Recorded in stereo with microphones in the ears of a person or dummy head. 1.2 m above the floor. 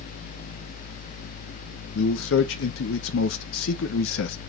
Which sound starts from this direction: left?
A man speaking, at 1.9 s.